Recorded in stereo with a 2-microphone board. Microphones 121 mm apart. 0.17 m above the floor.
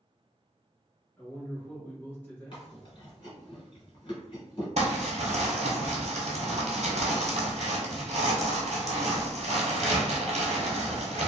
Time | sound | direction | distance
1.2 | a man speaking | 15° left (ahead or behind) | 1.2 m
2.5 | chewing | 40° left (ahead or behind) | 1.4 m
4.8 | crumpling | 65° right (ahead or behind) | 1.1 m